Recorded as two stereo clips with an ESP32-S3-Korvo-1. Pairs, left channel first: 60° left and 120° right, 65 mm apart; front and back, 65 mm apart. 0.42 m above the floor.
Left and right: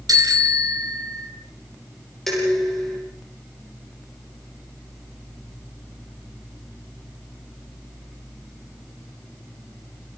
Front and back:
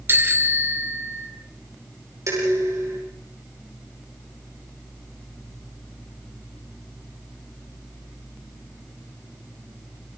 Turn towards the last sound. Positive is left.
turn(degrees=145)